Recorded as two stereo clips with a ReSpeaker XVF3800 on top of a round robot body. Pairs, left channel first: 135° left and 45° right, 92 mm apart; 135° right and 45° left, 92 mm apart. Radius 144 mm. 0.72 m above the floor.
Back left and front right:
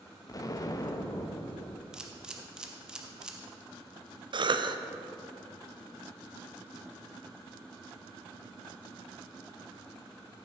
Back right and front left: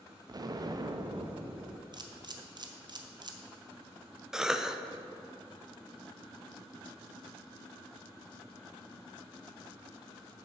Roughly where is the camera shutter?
Ahead left.